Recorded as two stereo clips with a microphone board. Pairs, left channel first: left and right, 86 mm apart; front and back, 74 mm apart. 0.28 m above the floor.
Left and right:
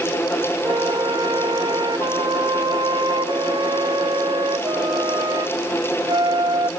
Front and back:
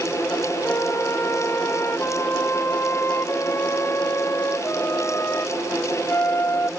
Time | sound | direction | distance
0.6 | a flute | 55° right | ?